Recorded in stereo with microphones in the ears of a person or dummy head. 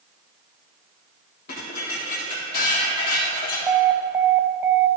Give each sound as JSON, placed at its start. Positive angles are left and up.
{"t": 1.5, "sound": "dishes clattering", "side_deg": 50, "distance_m": 2.5}
{"t": 3.7, "sound": "an alarm", "side_deg": -10, "distance_m": 0.6}